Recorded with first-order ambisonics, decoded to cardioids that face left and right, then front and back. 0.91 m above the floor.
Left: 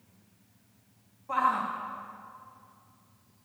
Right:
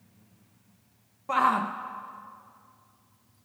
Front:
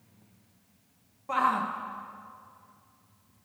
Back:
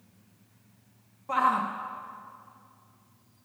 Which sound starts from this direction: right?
A shout, at 1.3 s.